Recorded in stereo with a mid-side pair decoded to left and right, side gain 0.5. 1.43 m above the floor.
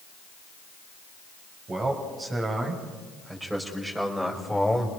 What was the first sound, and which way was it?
A man speaking, 35° right.